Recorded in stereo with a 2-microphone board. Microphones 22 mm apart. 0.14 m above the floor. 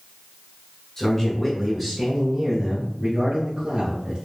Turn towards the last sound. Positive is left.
turn(degrees=-45)  # may be behind; listen again after turning